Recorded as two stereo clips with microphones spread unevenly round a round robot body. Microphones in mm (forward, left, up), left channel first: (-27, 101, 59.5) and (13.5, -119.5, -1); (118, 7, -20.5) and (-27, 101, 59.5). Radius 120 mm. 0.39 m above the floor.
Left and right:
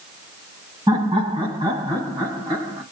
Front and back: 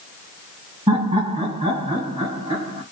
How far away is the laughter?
About 1.2 m.